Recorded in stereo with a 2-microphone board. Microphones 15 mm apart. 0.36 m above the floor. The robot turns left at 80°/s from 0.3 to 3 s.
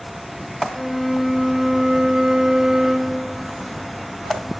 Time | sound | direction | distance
0.7 | a flute | 40° left | 2 m